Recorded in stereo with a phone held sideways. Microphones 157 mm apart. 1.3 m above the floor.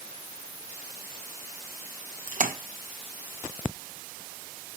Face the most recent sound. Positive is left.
turn(degrees=-60)  # may be behind; listen again after turning